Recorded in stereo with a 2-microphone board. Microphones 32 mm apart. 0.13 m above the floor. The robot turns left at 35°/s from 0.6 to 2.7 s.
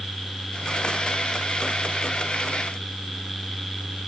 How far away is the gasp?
No gasp in this recording.